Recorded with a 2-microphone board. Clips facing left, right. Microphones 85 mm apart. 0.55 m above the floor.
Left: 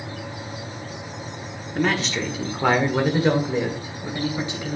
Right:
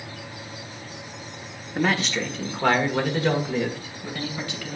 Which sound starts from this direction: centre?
A man speaking, at 1.8 s.